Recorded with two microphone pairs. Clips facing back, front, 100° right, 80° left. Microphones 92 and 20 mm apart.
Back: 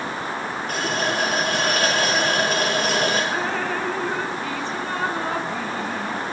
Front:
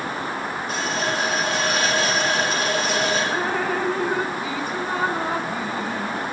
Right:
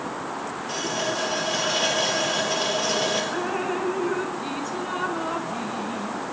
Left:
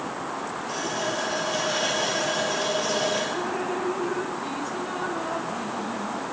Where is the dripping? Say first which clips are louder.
Front 1 dB, right 1 dB; 80° right, 0.6 m.